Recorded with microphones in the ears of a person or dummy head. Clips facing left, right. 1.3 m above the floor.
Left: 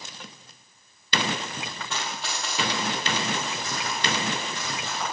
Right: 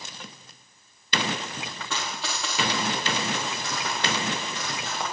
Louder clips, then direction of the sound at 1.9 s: Right 1 dB; 70° right (ahead or behind).